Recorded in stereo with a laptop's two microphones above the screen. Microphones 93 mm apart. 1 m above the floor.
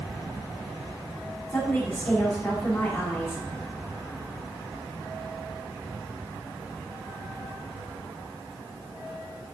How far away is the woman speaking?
About 3.5 m.